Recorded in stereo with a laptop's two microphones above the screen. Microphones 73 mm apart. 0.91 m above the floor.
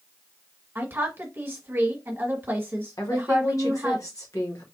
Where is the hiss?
No hiss in this recording.